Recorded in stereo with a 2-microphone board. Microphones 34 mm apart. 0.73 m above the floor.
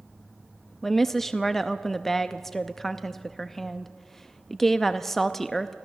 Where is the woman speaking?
5° left (ahead or behind), 0.6 m.